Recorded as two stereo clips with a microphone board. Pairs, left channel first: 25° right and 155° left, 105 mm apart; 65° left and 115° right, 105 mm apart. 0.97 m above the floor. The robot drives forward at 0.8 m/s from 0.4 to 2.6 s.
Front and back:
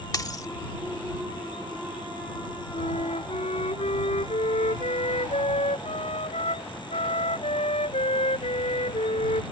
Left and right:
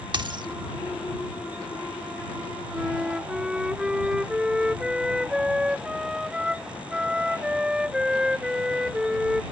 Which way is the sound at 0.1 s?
75° right.